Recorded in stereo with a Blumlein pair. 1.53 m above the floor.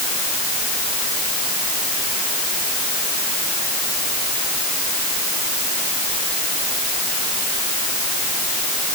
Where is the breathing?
No breathing in this recording.